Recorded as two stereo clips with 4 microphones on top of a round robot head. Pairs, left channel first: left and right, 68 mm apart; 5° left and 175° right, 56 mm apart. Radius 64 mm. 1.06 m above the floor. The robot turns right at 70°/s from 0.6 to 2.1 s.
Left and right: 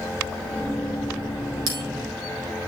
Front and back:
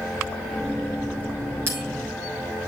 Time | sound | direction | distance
1.7 | a bell | 120° right | 4.5 m